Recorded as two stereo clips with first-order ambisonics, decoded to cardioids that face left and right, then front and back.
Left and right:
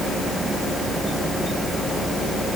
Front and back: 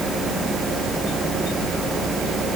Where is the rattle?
I don't hear a rattle.